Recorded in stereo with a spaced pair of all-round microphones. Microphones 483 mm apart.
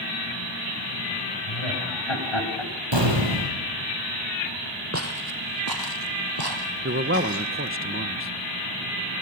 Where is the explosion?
65° right (ahead or behind), 6.5 m.